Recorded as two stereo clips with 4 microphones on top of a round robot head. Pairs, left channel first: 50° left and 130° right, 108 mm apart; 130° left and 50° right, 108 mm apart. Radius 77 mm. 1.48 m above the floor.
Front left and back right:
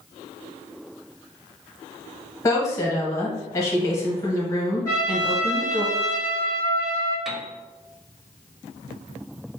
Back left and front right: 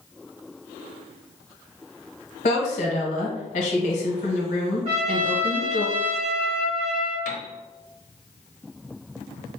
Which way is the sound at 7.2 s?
140° left.